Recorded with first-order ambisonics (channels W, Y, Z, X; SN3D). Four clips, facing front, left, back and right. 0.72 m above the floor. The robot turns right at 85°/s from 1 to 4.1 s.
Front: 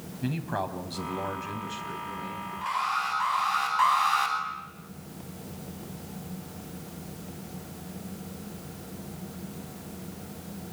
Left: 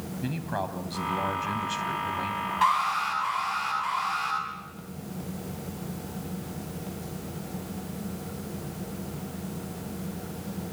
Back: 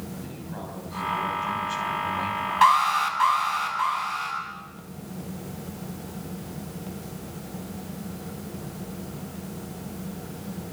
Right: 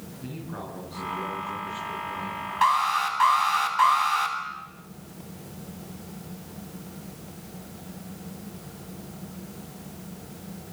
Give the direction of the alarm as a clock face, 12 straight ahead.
6 o'clock.